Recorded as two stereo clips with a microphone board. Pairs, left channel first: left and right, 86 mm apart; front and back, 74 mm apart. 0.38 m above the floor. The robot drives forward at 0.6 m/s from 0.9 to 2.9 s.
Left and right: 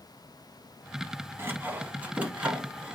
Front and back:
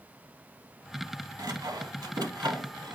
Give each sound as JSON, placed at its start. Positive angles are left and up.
{"t": 1.4, "sound": "sawing", "azimuth_deg": -150, "distance_m": 0.7}